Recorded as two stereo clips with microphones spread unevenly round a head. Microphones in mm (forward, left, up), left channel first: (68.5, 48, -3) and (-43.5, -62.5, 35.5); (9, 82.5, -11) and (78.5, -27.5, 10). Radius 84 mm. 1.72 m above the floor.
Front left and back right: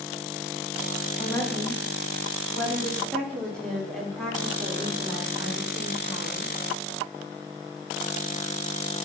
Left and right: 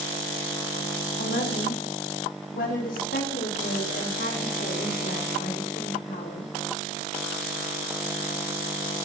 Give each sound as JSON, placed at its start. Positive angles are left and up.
{"t": 1.2, "sound": "a woman speaking", "azimuth_deg": 120, "distance_m": 3.0}